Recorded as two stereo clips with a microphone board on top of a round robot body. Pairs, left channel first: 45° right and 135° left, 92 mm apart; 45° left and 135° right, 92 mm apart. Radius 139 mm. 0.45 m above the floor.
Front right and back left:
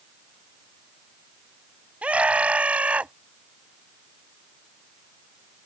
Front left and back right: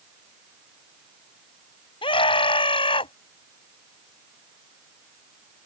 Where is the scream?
60° left.